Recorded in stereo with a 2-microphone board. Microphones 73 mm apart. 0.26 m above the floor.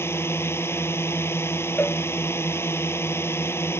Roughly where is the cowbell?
Left.